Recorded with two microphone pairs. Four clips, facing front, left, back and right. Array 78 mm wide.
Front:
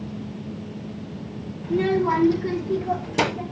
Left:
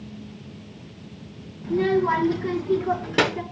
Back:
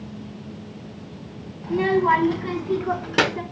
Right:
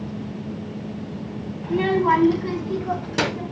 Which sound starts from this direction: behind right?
A child speaking, at 1.6 s.